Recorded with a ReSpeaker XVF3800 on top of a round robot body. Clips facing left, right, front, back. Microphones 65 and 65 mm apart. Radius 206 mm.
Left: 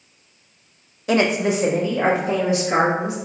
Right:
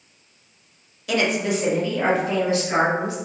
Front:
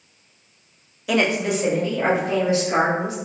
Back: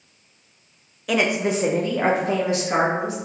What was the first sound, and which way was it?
A woman speaking, 85° left.